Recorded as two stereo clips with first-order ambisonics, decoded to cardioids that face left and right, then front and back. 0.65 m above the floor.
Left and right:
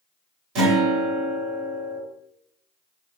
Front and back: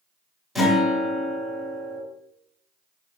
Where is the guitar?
90° right, 1.5 m.